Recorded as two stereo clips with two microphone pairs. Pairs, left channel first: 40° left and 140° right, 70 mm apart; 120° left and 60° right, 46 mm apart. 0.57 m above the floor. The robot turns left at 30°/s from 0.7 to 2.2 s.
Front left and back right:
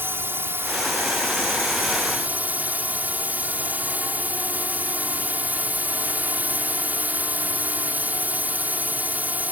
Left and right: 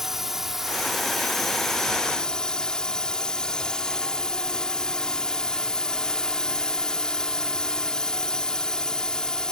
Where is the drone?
135° right; by 9.5 s straight behind.